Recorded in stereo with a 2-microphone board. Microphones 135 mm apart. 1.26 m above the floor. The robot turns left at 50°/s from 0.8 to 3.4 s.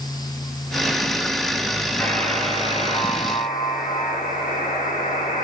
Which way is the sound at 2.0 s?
175° left.